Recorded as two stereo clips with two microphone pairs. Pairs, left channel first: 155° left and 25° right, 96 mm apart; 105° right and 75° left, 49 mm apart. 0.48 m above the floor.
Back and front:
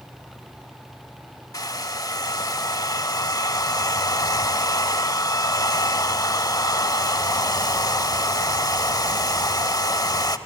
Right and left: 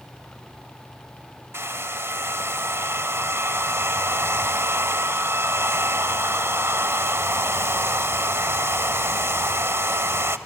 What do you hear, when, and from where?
1.5 s a hair dryer: 105° left, 0.8 m